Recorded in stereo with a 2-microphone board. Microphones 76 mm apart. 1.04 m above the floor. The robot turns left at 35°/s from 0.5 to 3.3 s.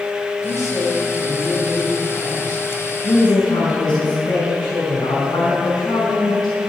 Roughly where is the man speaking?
Behind left.